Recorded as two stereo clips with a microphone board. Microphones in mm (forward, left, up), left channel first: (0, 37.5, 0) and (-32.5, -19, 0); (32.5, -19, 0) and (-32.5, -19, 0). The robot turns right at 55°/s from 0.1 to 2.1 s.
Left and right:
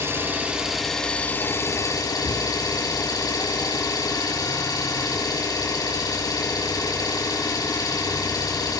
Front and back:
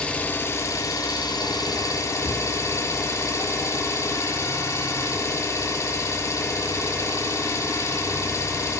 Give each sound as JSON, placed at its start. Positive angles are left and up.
{"t": 0.0, "sound": "an engine running", "azimuth_deg": -75, "distance_m": 2.0}